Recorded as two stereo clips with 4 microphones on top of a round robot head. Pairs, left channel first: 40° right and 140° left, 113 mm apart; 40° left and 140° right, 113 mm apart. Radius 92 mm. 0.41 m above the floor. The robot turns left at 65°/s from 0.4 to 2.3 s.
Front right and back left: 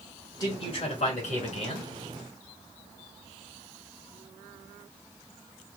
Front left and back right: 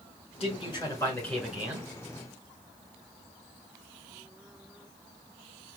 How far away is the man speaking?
About 3 m.